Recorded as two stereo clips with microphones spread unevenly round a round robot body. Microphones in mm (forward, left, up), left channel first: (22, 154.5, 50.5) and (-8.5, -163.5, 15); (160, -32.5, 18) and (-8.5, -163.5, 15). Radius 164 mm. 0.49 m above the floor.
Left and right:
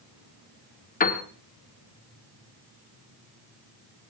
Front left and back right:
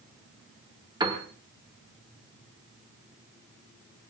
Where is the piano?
150° left, 1.2 m.